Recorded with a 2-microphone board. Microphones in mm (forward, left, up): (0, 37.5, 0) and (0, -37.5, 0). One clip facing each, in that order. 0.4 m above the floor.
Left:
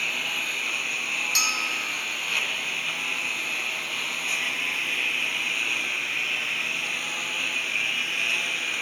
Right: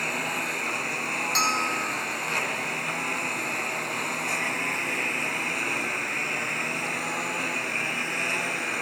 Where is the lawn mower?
25° right (ahead or behind).